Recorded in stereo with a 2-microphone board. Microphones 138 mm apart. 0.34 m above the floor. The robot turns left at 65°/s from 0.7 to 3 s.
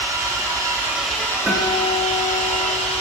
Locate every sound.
0.0 s an engine running: 155° right, 0.8 m; by 3.0 s 55° left, 0.8 m
1.5 s a guitar: 10° right (ahead or behind), 0.9 m; by 3.0 s 20° right (ahead or behind), 0.9 m